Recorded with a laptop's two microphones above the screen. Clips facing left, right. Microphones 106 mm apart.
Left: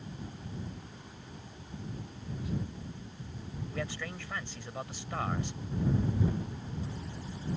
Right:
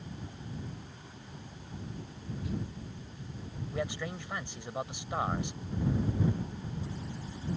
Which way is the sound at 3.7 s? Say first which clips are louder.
Right 4 dB; 20° right (ahead or behind).